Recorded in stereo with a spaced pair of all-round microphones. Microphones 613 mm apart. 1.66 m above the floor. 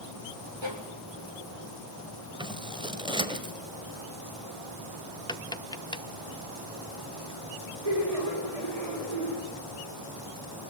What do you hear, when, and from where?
0.6 s a violin: 45° right (ahead or behind), 3.5 m
2.4 s scissors: 5° right (ahead or behind), 1.6 m
5.3 s tapping: 5° left (ahead or behind), 0.7 m
7.8 s laughter: 65° right (ahead or behind), 8 m